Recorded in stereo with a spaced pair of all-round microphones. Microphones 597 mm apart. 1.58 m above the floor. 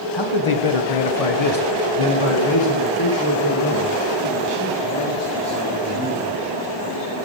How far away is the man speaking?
About 1.0 m.